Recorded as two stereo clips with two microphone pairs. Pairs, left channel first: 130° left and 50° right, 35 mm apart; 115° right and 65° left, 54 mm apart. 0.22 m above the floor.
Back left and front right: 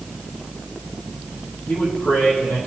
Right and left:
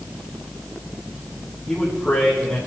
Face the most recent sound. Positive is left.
turn(degrees=165)